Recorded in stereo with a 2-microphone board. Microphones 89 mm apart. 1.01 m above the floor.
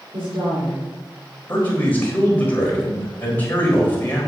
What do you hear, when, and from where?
0.1 s a woman speaking: 75° right (ahead or behind), 3 m
1.5 s a man speaking: 20° left (ahead or behind), 4 m